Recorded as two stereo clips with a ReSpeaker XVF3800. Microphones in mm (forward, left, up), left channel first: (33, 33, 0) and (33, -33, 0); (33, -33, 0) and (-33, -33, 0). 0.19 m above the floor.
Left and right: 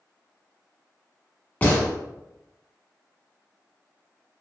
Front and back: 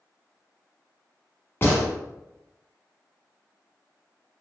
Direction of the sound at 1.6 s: 35° left.